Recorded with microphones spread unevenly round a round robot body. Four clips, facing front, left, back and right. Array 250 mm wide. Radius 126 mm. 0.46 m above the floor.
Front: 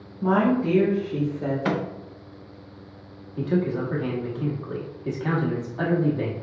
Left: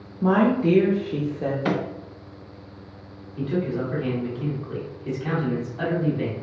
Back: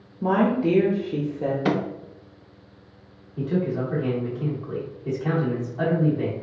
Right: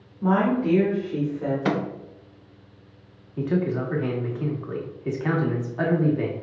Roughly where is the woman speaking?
Behind left.